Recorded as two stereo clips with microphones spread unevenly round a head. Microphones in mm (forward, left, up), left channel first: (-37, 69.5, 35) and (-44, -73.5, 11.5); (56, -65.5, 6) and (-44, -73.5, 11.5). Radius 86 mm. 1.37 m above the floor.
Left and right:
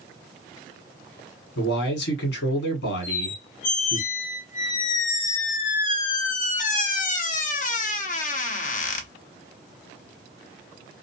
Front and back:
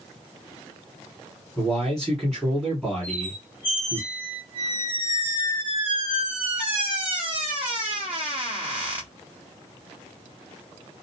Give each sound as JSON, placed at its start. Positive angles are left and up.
{"t": 1.6, "sound": "a man speaking", "azimuth_deg": 90, "distance_m": 1.2}
{"t": 3.0, "sound": "a squeak", "azimuth_deg": 105, "distance_m": 0.6}